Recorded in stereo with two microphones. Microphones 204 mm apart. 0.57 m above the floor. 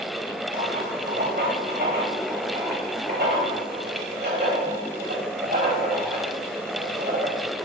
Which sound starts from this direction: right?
Writing, at 0.5 s.